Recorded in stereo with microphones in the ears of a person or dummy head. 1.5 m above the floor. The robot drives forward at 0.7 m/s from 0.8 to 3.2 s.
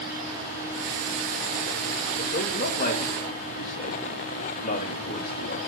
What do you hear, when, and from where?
2.2 s a man speaking: 50° left (ahead or behind), 2.5 m; by 5.6 s 40° left (ahead or behind), 3 m